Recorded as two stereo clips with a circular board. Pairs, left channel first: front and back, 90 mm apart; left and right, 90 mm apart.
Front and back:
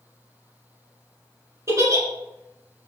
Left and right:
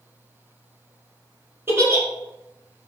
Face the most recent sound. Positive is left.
turn(degrees=-140)